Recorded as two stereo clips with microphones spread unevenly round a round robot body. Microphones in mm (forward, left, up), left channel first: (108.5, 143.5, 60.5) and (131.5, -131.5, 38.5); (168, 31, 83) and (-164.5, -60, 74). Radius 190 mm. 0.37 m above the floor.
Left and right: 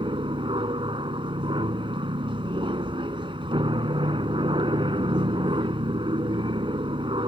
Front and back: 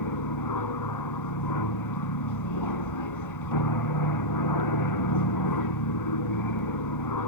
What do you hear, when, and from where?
0.0 s an aircraft: 15° right